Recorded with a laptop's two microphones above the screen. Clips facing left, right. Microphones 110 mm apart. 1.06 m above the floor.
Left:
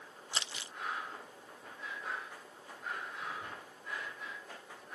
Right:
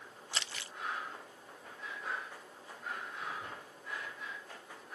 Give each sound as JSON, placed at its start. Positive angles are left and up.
{"t": 0.3, "sound": "crumpling", "side_deg": 20, "distance_m": 0.6}